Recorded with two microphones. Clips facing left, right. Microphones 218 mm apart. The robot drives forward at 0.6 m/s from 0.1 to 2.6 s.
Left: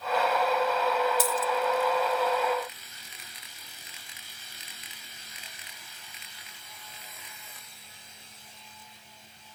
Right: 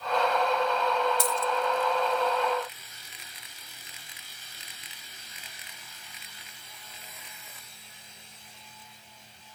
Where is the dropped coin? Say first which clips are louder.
Left 1 dB; 5° left (ahead or behind), 0.8 m.